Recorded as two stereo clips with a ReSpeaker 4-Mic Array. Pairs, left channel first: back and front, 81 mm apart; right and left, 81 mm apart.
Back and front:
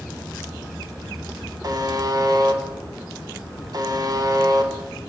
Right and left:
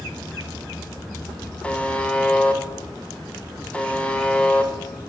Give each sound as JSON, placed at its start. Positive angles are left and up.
{"t": 1.6, "sound": "a buzzer", "azimuth_deg": -20, "distance_m": 0.5}